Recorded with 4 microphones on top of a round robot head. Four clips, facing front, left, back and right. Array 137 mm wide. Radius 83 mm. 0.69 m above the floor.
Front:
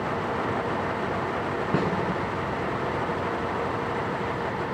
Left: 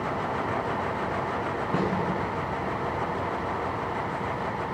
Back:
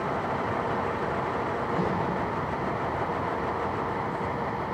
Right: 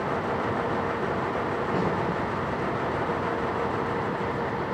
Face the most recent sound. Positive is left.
turn(degrees=15)